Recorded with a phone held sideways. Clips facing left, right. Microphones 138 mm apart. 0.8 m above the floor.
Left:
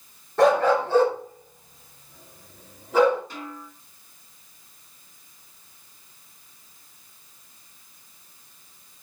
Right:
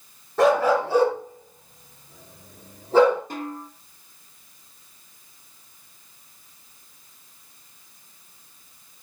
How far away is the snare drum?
About 2.5 m.